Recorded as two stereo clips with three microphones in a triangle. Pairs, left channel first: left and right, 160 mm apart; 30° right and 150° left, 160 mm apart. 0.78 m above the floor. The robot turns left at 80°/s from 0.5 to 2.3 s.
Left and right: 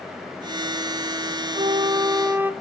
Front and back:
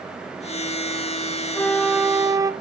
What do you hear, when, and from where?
1.6 s a flute: 95° right, 0.5 m; by 2.5 s 155° right, 0.5 m